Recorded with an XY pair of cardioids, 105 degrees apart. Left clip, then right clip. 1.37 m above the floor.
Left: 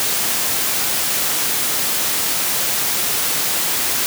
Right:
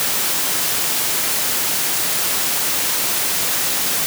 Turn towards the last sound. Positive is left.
No sound to turn to.